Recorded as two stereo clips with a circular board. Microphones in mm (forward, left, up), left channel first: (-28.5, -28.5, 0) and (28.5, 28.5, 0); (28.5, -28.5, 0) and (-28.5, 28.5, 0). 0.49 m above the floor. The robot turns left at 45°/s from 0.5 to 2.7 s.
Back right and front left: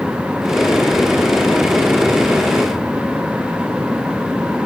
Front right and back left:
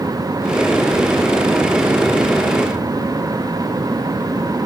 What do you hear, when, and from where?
Only background noise.